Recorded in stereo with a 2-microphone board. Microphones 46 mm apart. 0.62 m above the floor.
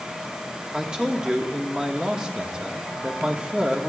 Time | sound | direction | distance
0.7 | a man speaking | 20° right (ahead or behind) | 1.4 m